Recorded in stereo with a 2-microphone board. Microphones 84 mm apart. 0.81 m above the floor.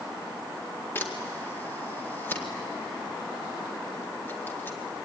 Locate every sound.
0.9 s a camera shutter: 25° left (ahead or behind), 2 m